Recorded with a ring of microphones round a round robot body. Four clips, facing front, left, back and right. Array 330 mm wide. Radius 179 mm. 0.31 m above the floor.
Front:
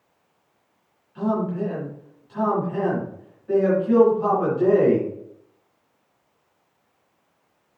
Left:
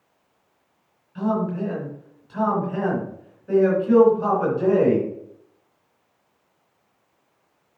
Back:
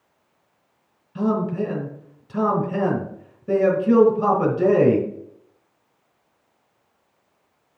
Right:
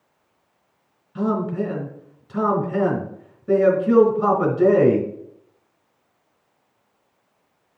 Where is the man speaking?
150° right, 3.5 m.